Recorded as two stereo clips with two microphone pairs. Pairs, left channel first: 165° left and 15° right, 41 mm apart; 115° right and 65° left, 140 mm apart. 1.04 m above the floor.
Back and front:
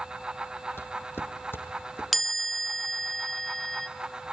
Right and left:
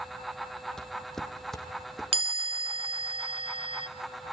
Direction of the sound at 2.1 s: 85° left.